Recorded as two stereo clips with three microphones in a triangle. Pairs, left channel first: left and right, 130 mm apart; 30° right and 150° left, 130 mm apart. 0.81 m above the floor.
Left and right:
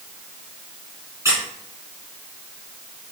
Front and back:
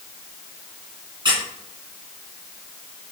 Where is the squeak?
160° right, 1.7 m.